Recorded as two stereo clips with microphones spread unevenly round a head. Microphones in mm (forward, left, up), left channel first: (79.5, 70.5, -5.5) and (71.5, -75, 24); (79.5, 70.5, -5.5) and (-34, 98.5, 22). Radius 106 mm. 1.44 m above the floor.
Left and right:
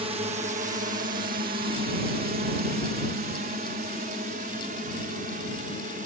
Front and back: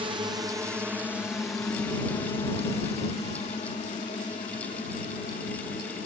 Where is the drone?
145° right; by 6.1 s 65° right.